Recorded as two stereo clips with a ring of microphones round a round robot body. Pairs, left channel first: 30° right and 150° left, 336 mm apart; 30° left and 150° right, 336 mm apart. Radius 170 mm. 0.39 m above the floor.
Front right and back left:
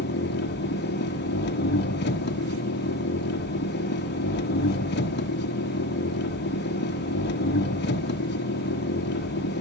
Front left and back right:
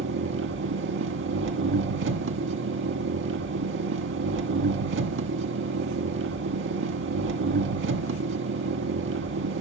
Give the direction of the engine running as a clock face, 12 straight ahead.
3 o'clock.